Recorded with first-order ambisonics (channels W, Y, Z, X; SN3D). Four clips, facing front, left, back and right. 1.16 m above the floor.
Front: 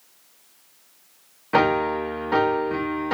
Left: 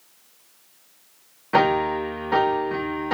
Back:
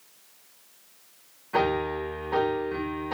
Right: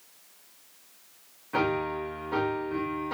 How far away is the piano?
About 1.6 m.